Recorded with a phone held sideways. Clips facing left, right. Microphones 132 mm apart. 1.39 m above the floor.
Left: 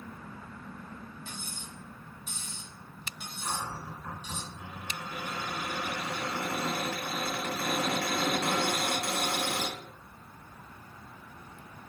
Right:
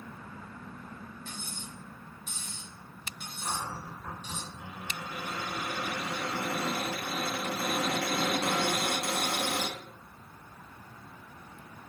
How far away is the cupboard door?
About 1.9 m.